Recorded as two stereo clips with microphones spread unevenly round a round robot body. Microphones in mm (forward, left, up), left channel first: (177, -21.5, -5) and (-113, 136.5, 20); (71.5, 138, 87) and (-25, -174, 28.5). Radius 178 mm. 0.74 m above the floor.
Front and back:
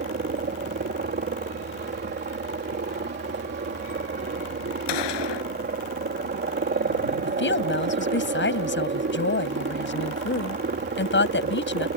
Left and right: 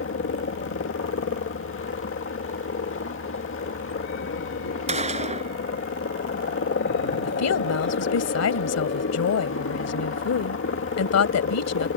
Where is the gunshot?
35° right.